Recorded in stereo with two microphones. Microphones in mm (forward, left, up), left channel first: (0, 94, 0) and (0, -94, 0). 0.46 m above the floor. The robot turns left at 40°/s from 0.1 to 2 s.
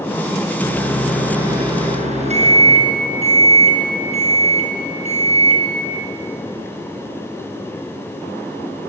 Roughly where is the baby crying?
I don't hear a baby crying.